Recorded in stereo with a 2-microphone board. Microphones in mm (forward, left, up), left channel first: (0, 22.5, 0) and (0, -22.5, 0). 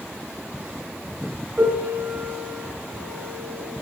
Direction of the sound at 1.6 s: 55° right (ahead or behind).